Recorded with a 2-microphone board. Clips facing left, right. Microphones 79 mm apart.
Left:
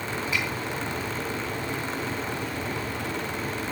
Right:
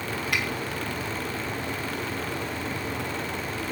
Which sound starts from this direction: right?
A finger snap, at 0.3 s.